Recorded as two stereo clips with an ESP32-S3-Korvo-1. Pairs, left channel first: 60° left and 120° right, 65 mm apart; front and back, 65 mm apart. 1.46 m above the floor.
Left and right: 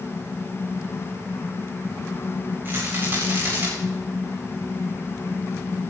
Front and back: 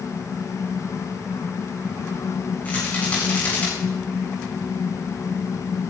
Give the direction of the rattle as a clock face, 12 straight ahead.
2 o'clock.